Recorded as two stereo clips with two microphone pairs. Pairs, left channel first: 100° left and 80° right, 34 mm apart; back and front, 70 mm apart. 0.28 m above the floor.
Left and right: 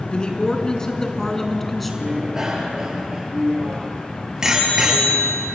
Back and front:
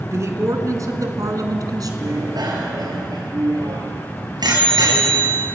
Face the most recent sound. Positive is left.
turn(degrees=-5)